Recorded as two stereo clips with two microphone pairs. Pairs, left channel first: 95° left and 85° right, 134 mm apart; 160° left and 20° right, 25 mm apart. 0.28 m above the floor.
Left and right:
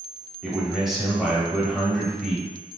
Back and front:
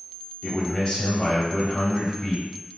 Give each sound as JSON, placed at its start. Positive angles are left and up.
{"t": 0.4, "sound": "a man speaking", "azimuth_deg": -175, "distance_m": 1.0}